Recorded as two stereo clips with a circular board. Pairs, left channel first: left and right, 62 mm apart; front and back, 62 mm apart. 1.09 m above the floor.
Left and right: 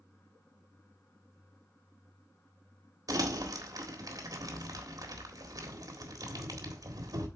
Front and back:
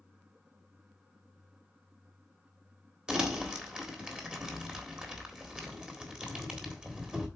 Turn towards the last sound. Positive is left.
turn(degrees=-105)